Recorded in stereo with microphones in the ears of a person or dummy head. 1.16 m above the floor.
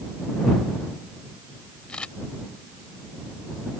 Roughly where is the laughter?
No laughter in this recording.